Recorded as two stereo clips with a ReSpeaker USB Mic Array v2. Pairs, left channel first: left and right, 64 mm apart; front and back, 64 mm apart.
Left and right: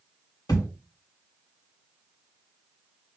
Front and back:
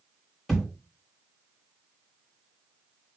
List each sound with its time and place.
0.5 s a thud: 85° left, 1.8 m